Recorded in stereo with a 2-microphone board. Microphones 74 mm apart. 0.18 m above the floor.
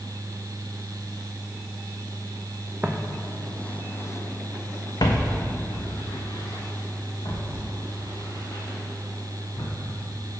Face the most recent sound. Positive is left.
turn(degrees=85)